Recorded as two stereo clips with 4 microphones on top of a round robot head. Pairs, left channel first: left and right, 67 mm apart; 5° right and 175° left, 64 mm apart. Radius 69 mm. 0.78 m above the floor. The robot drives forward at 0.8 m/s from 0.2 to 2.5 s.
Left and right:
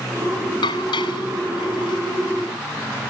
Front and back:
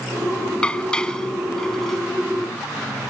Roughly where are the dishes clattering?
Left.